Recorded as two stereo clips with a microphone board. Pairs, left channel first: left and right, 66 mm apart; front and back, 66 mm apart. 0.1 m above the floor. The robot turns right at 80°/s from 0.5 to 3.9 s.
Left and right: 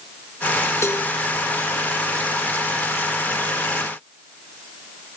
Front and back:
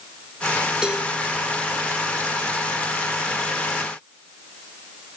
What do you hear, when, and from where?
0.8 s a cowbell: 105° left, 0.9 m; by 1.1 s 125° left, 0.9 m